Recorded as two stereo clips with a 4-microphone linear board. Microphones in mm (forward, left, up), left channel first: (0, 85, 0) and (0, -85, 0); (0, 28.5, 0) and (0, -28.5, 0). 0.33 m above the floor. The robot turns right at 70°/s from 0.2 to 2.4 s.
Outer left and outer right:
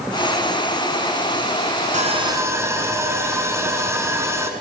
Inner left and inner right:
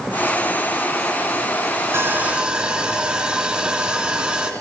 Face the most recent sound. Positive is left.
turn(degrees=-15)